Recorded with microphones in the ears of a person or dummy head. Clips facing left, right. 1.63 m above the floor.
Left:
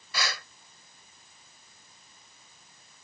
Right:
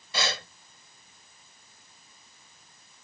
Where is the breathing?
25° right (ahead or behind).